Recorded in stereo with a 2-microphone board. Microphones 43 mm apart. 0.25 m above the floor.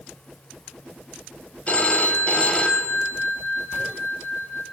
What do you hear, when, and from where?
1.7 s a phone ringing: 30° left (ahead or behind), 0.6 m